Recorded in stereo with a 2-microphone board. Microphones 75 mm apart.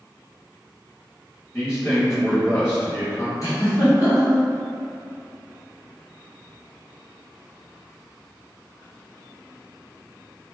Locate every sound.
1.5 s a man speaking: 35° left (ahead or behind), 1.7 m
3.4 s a giggle: 45° left (ahead or behind), 1.2 m